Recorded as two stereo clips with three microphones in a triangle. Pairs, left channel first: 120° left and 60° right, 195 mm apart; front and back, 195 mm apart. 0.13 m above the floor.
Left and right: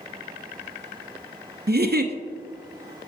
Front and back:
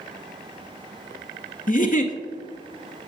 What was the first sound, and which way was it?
A giggle, 40° right.